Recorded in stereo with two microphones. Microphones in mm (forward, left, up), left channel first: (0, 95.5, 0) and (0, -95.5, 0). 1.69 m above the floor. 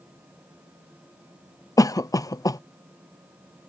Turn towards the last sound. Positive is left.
turn(degrees=20)  # may be behind; listen again after turning